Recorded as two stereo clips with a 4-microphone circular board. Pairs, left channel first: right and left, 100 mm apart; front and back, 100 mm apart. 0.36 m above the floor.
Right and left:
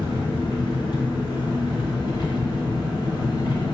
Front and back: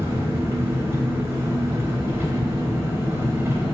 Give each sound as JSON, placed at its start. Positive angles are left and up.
{"t": 0.0, "sound": "an engine running", "azimuth_deg": -120, "distance_m": 0.8}